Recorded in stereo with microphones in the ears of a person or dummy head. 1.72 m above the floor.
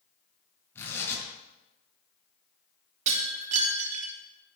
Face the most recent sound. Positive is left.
turn(degrees=-45)  # may be behind; listen again after turning